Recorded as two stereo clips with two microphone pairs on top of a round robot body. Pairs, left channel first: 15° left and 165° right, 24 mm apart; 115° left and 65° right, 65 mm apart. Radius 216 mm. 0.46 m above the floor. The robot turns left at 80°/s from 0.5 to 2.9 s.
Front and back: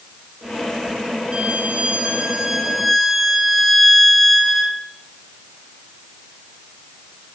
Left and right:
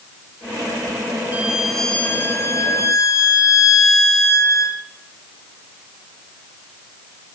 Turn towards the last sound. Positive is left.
turn(degrees=105)